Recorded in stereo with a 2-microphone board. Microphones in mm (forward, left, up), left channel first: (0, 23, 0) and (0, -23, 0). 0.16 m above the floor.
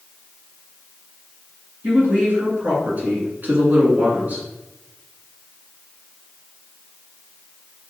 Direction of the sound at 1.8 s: 35° right (ahead or behind).